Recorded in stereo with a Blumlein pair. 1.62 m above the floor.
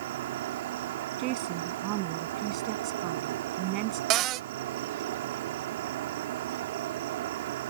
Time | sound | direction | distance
0.0 | an insect | 55° right | ?
1.2 | a woman speaking | 40° right | ?
4.1 | a cupboard door | 35° right | ?